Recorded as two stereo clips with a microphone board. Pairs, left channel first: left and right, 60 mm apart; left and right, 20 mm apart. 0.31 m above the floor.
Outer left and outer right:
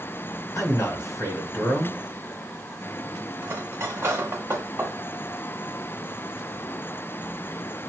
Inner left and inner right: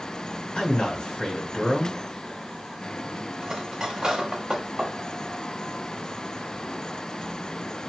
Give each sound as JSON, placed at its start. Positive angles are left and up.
{"t": 0.6, "sound": "a man speaking", "side_deg": 60, "distance_m": 1.9}
{"t": 3.4, "sound": "cutlery clinking", "side_deg": -45, "distance_m": 0.8}